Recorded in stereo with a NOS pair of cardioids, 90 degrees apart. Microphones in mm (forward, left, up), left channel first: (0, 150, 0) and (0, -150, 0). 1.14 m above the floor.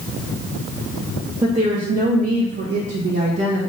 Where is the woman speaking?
10° right, 1.5 m; by 3.7 s 65° right, 1.2 m.